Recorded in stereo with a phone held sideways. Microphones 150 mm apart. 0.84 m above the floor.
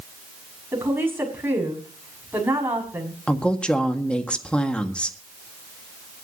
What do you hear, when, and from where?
0.7 s a woman speaking: 15° right (ahead or behind), 6.5 m
3.3 s a woman speaking: 5° left (ahead or behind), 1.6 m